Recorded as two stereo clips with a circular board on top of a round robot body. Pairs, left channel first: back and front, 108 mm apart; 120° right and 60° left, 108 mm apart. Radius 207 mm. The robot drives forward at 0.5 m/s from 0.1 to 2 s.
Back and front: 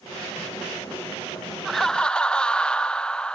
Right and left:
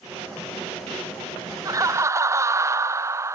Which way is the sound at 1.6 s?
90° left.